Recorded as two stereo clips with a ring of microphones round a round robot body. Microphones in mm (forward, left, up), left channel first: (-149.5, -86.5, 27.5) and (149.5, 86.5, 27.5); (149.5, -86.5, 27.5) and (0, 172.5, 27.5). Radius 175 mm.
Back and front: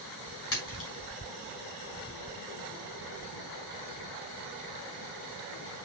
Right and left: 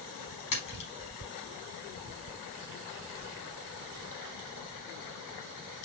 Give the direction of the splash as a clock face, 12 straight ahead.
3 o'clock.